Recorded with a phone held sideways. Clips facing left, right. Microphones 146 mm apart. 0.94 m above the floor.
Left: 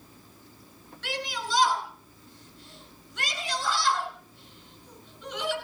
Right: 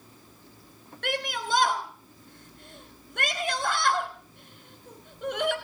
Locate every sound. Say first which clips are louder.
1.0 s a shout: right 3 dB; 55° right (ahead or behind), 5 m